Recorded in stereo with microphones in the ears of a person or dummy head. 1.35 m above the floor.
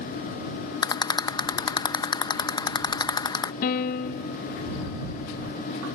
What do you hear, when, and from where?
0.8 s a rattle: 15° left (ahead or behind)
3.6 s a piano: 55° left (ahead or behind)